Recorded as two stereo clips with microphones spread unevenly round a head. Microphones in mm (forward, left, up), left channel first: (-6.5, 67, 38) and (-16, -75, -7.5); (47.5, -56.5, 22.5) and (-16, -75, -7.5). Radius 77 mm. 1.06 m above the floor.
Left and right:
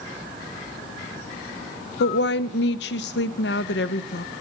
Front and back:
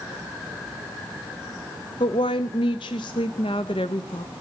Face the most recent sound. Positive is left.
turn(degrees=65)